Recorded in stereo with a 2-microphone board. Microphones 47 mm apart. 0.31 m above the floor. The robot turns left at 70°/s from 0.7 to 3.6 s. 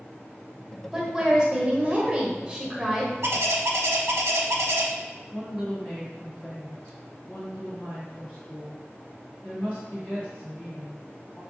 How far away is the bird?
About 0.6 m.